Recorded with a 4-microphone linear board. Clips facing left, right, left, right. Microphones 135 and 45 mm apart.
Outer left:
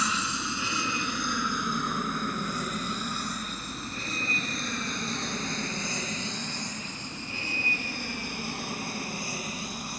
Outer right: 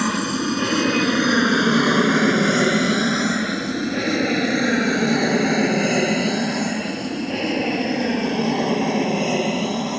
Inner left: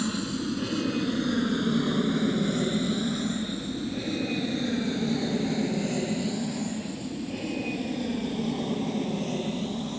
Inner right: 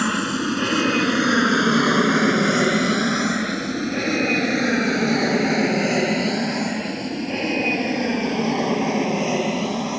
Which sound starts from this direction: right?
An aircraft, at 0.0 s.